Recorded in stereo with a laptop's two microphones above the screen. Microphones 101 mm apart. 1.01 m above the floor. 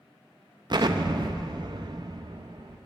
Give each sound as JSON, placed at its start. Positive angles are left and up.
{"t": 0.7, "sound": "an explosion", "side_deg": -45, "distance_m": 0.7}